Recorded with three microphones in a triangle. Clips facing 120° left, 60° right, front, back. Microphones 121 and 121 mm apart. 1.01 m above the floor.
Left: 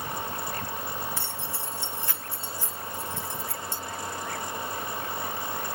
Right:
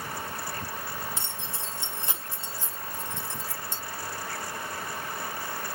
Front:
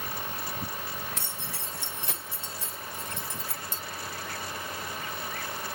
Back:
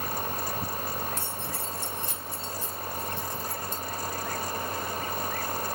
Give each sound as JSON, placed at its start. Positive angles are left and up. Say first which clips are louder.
{"t": 1.2, "sound": "keys jangling", "louder": "left 2 dB, back 4 dB", "azimuth_deg": 10, "distance_m": 3.5}